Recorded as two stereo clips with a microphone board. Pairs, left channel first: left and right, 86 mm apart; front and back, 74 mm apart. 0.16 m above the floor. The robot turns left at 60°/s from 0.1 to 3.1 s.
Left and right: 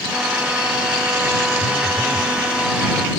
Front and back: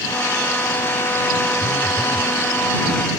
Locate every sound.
1.6 s a phone buzzing: 70° right; by 2.3 s 115° right